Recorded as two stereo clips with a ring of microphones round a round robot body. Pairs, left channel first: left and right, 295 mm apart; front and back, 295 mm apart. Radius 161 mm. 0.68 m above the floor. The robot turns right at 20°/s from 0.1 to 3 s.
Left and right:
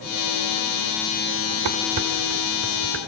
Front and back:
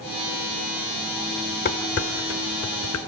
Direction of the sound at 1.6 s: 60° right.